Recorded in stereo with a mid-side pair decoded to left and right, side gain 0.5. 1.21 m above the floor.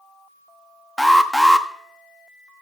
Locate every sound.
1.0 s an alarm: straight ahead, 1.1 m